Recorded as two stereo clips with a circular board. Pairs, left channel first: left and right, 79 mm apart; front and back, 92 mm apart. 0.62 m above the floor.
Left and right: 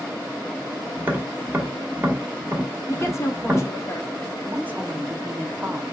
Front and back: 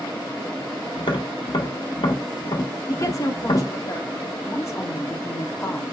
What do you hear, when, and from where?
1.0 s tapping: 25° right, 1.1 m
2.9 s a woman speaking: 45° left, 0.9 m
4.5 s a woman speaking: 30° right, 0.7 m